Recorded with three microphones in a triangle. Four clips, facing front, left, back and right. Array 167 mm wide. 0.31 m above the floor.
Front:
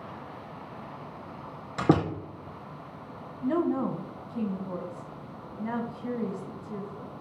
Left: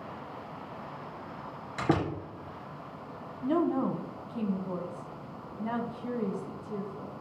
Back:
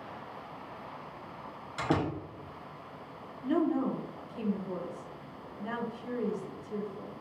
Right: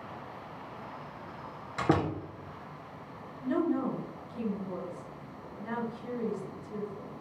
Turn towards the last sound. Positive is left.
turn(degrees=55)